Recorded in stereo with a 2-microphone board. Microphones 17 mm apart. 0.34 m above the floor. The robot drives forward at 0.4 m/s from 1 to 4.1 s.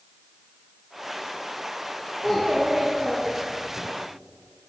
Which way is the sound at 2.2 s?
20° left (ahead or behind).